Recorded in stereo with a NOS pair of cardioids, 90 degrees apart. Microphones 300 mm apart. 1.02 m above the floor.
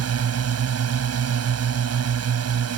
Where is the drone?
55° right.